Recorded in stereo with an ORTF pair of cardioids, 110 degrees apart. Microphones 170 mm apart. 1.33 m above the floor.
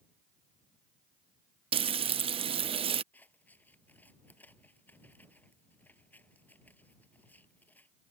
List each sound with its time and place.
1.7 s frying: 35° right
3.1 s scissors: 10° left